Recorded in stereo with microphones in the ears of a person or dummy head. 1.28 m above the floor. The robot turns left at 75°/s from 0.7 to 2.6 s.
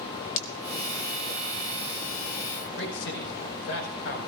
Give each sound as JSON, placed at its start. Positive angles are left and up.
{"t": 0.4, "sound": "breaking glass", "side_deg": 35, "distance_m": 1.2}
{"t": 2.8, "sound": "a man speaking", "side_deg": 65, "distance_m": 5.0}